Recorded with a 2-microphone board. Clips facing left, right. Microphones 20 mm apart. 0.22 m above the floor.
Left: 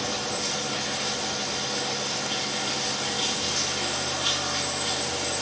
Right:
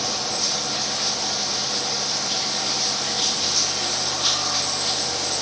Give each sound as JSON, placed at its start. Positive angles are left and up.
{"t": 0.0, "sound": "running water", "side_deg": -85, "distance_m": 1.1}